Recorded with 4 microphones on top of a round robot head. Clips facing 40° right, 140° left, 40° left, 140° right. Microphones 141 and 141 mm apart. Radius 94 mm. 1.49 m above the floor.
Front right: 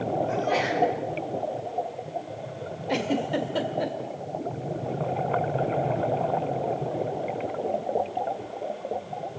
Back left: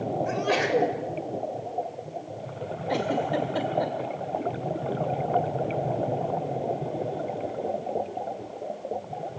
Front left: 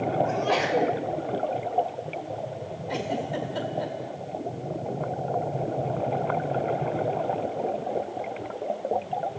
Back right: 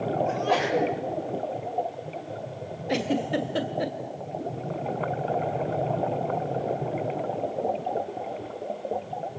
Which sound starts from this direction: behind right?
A giggle, at 2.9 s.